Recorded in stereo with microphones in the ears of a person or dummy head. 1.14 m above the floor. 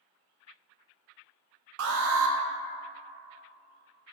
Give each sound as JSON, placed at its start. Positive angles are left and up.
{"t": 1.8, "sound": "an alarm", "side_deg": -75, "distance_m": 0.6}